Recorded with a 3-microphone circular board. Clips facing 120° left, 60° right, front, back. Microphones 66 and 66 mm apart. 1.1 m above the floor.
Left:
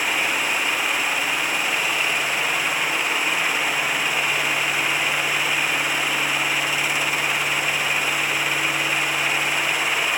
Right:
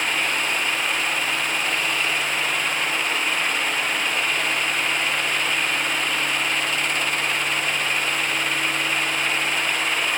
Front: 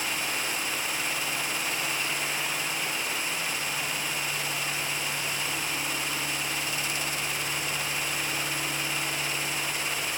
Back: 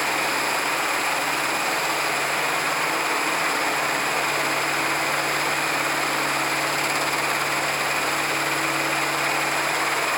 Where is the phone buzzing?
I don't hear a phone buzzing.